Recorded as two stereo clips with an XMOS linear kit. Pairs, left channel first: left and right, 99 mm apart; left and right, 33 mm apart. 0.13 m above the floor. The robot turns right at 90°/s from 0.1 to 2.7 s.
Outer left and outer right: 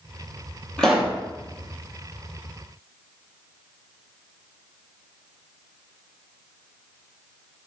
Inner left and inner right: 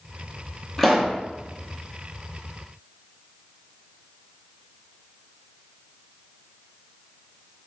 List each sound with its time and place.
0.8 s a pop: 170° left, 0.8 m; by 1.2 s 155° right, 0.8 m